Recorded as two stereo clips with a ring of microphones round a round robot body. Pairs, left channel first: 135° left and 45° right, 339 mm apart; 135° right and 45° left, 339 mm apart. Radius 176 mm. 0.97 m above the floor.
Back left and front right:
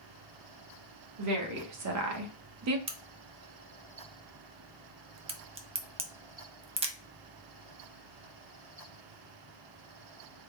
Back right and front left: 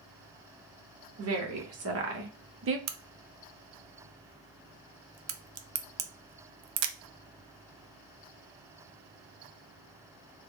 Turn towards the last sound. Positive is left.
turn(degrees=25)